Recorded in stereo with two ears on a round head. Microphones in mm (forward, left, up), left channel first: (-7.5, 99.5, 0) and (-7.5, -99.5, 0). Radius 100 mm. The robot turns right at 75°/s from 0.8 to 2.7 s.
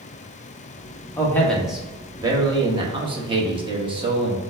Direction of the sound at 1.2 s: 15° left (ahead or behind).